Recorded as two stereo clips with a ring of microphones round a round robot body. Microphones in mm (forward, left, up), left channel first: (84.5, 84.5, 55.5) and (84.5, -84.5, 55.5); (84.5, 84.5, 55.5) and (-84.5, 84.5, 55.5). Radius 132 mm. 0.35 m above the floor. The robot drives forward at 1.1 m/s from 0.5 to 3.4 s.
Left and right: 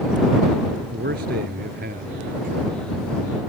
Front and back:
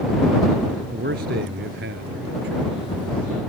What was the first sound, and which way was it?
A man speaking, 135° right.